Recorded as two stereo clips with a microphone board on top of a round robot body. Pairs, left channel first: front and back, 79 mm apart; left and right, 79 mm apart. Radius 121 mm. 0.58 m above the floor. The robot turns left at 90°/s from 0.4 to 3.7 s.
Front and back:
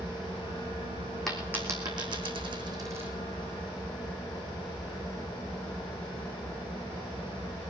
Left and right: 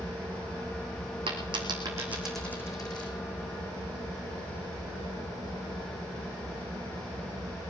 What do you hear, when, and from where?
0.0 s an engine running: 115° right, 8.5 m; by 7.7 s 55° right, 8.5 m
1.3 s a dropped coin: 85° right, 3 m; by 3.1 s 110° left, 3 m